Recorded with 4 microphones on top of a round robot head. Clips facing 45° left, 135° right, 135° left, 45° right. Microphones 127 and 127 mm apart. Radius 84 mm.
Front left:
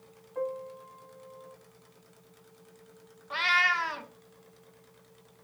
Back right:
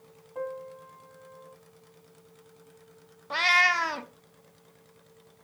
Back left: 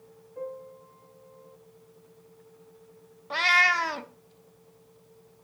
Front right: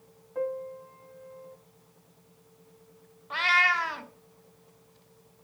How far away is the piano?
About 3 m.